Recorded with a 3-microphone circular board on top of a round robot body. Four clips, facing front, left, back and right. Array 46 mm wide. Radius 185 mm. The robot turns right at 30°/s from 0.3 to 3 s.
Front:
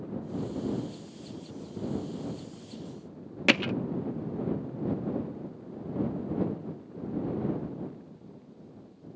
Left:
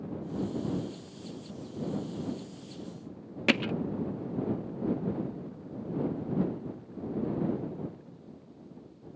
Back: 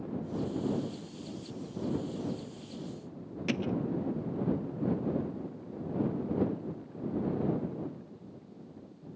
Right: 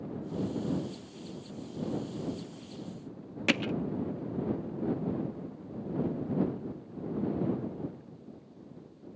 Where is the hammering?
5° left.